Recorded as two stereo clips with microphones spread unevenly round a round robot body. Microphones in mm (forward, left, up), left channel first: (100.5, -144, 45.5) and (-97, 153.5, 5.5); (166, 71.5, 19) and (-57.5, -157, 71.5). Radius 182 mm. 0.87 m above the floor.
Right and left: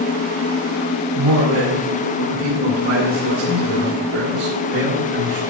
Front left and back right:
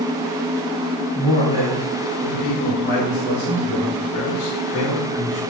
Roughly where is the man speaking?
Behind left.